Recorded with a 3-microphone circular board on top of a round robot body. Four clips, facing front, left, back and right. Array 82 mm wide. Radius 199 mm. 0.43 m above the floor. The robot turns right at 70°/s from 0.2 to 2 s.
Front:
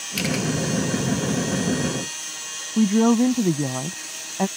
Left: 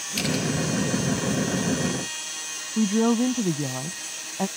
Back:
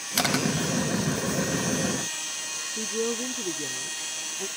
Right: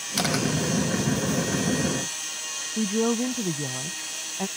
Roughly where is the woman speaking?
Ahead.